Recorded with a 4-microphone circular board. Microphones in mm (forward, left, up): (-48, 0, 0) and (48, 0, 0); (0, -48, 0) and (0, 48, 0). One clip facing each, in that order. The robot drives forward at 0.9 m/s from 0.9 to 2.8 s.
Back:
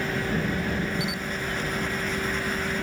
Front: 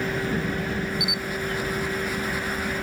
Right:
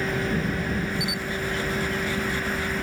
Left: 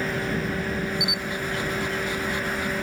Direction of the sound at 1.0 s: 120° left.